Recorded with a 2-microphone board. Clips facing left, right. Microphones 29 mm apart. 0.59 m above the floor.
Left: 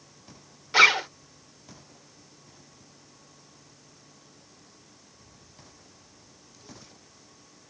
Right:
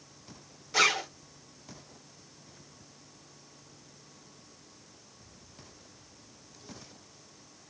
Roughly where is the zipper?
Left.